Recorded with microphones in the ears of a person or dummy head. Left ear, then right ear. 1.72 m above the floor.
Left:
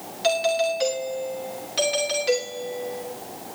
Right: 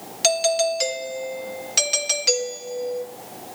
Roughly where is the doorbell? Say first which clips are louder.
Right 2 dB; right.